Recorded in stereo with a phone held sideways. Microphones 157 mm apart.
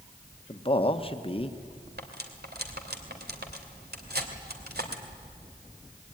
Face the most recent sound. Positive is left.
turn(degrees=-85)